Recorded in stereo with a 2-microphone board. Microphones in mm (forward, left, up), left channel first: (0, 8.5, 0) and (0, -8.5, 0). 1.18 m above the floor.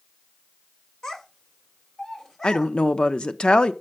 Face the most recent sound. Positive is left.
turn(degrees=60)  # may be behind; listen again after turning